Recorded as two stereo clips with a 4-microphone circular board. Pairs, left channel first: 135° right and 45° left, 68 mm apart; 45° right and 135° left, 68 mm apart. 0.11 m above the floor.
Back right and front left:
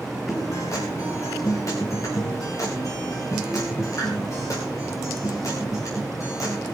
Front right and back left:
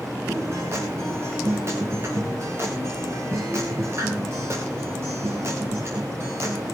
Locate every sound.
0.3 s a guitar: 175° right, 6 m